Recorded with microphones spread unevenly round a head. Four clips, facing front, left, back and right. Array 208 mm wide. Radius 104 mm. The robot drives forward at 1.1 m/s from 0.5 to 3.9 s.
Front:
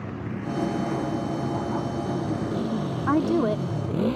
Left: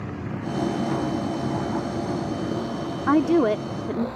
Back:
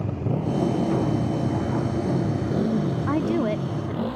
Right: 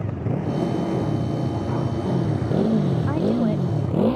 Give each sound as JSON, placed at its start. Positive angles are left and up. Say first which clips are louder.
{"t": 0.0, "sound": "a motorcycle", "louder": "right 4 dB, back 5 dB", "azimuth_deg": -140}
{"t": 3.1, "sound": "a woman speaking", "louder": "left 8 dB, front 4 dB", "azimuth_deg": 70}